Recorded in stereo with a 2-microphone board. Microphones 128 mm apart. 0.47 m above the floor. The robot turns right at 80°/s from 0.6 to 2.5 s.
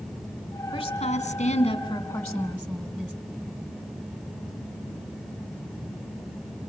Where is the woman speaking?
50° left, 3 m; by 3.1 s 165° right, 3 m.